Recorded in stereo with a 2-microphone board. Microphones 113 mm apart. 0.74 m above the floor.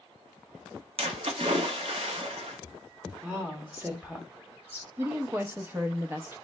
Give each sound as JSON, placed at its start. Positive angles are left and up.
{"t": 1.0, "sound": "a splash", "side_deg": -60, "distance_m": 0.8}
{"t": 3.2, "sound": "a woman speaking", "side_deg": -15, "distance_m": 1.0}
{"t": 5.0, "sound": "a woman speaking", "side_deg": -20, "distance_m": 0.6}